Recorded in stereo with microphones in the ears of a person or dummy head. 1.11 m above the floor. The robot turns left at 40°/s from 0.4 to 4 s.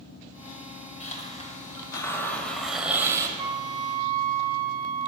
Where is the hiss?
65° left, 1.2 m; by 3.3 s 25° right, 1.2 m.